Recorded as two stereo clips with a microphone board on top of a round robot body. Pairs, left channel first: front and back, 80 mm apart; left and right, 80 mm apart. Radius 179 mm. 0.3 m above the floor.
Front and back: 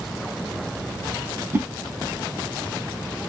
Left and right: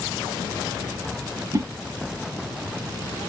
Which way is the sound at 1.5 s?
125° right.